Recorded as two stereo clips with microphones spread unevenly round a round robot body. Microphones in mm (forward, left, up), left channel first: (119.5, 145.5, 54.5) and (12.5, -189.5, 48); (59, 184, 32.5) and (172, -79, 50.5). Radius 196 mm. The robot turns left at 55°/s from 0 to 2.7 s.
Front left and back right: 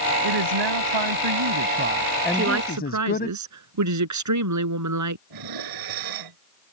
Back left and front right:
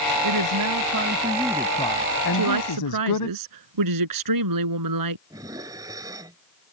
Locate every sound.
0.2 s a woman speaking: 85° right; by 3.3 s 140° left
2.3 s a woman speaking: 45° right; by 5.2 s 65° right
5.3 s dishes clattering: 150° right